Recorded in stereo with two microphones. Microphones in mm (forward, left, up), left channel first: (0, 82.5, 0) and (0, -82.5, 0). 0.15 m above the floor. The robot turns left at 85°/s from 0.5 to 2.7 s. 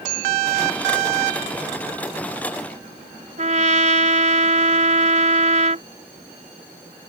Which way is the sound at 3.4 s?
50° right (ahead or behind).